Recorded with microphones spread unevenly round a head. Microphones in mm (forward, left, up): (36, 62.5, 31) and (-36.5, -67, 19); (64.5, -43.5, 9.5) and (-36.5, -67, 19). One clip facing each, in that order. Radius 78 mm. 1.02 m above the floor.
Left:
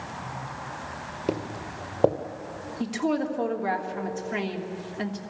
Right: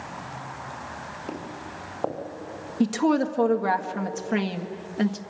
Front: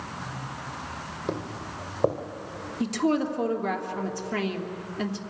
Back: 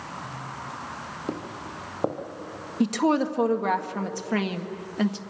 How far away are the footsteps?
About 1.7 m.